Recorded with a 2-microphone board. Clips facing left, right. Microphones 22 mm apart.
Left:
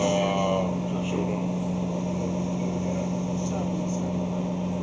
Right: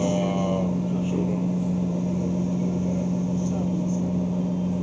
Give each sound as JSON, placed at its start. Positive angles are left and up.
{"t": 0.0, "sound": "a vehicle", "side_deg": 25}